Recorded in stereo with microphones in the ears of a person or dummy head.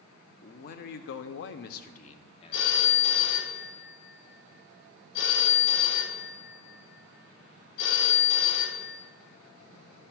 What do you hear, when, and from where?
0.4 s a man speaking: 40° left (ahead or behind), 0.6 m; by 3.2 s 20° left (ahead or behind), 1.2 m
2.5 s a phone ringing: 60° left (ahead or behind), 1.0 m